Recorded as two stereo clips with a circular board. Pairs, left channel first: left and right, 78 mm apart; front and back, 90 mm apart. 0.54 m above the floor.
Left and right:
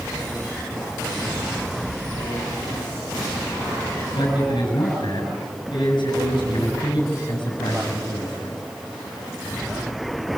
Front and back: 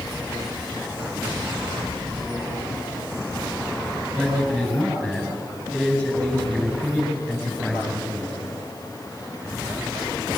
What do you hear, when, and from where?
4.2 s a man speaking: 75° left, 7 m